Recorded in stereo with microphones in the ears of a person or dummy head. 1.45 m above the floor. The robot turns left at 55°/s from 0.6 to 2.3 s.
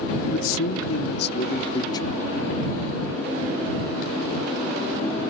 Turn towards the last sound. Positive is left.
turn(degrees=10)